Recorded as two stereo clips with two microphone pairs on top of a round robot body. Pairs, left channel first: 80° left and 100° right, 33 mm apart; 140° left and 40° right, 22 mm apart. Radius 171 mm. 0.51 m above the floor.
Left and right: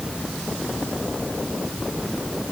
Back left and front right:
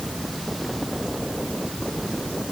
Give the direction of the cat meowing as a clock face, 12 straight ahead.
I don't hear a cat meowing.